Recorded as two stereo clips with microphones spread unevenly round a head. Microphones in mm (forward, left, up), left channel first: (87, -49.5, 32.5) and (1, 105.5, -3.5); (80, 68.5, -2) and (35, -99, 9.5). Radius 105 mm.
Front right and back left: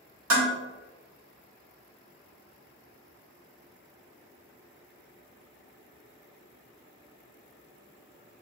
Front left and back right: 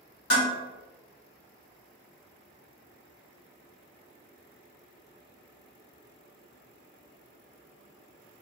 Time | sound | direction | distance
0.3 | dishes clattering | 120° left | 1.7 m